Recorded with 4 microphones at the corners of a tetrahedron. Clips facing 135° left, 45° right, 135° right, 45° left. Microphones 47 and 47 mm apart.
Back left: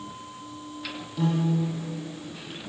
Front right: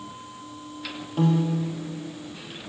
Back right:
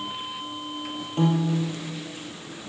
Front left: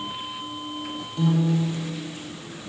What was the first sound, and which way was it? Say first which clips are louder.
A piano: front right 2 dB, front left 1 dB; 90° right.